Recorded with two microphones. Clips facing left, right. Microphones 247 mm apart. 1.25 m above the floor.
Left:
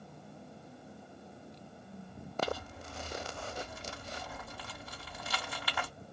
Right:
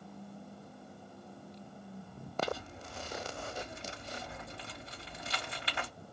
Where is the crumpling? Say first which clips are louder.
Left 2 dB; 25° right (ahead or behind), 1.6 m.